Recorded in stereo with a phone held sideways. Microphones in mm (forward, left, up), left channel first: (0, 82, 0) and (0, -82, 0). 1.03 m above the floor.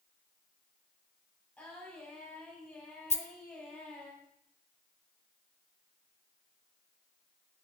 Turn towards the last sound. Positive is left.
turn(degrees=40)  # may be behind; listen again after turning